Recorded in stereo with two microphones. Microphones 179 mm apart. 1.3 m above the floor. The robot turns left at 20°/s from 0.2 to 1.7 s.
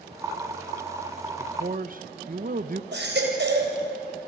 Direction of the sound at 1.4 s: 45° right (ahead or behind).